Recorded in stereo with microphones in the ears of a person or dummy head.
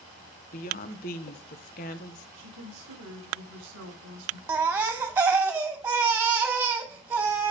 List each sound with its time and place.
0.5 s a woman speaking: 45° left (ahead or behind), 1.3 m
2.4 s a woman speaking: 75° right (ahead or behind), 3 m
4.5 s a baby crying: 10° right (ahead or behind), 0.8 m